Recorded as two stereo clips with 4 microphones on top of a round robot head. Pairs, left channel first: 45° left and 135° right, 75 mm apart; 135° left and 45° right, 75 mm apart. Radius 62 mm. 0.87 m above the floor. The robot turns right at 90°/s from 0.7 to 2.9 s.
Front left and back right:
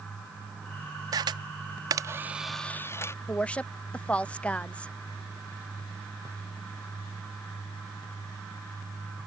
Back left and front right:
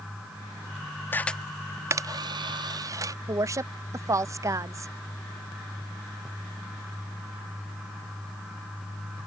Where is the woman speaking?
20° right.